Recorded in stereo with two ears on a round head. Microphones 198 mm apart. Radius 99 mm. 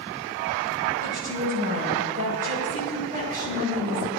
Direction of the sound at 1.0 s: 40° right (ahead or behind).